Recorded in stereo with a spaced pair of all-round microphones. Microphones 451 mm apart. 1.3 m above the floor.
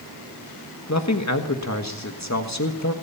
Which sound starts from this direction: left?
A man speaking, at 0.9 s.